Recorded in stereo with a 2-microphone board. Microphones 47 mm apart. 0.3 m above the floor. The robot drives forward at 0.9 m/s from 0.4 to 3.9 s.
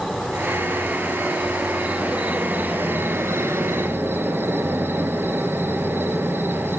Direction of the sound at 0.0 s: 10° right (ahead or behind).